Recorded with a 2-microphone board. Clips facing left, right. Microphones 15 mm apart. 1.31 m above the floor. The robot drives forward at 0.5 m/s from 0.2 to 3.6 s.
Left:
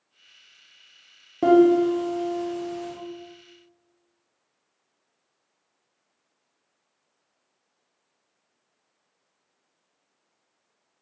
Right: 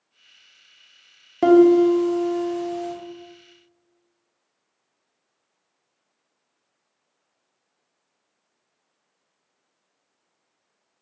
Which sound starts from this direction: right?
A piano, at 1.4 s.